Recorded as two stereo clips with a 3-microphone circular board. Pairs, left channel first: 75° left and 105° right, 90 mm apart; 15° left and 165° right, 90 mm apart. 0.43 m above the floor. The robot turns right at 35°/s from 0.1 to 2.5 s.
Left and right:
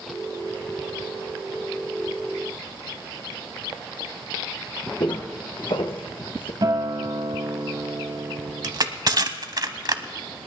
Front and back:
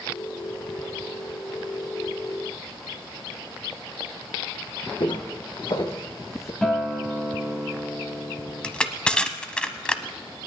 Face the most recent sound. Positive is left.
turn(degrees=-65)